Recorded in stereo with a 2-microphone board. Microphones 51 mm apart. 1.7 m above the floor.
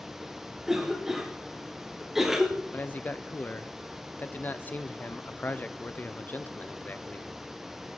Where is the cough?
10° right (ahead or behind), 1.2 m.